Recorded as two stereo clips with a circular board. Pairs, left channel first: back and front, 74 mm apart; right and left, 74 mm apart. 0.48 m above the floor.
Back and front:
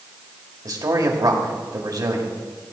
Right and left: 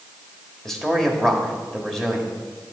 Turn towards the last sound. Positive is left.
turn(degrees=-5)